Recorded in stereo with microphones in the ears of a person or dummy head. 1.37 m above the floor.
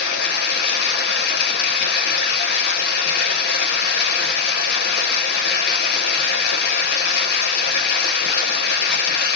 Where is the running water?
60° left (ahead or behind), 1.1 m.